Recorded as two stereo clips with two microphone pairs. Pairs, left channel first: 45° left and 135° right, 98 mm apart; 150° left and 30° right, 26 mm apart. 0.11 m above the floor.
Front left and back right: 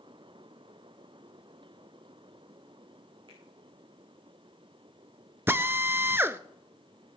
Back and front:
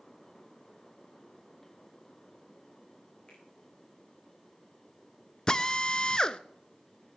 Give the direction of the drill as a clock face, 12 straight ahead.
6 o'clock.